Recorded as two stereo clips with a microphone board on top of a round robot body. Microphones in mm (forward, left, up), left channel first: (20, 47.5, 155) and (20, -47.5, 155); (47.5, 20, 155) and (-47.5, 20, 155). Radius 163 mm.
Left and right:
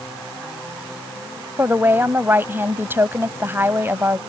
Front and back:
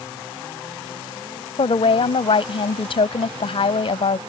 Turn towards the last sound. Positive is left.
turn(degrees=-20)